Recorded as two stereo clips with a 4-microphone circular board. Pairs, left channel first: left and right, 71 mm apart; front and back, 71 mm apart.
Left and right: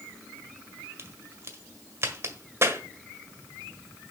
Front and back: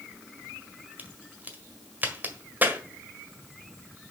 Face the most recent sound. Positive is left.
turn(degrees=-125)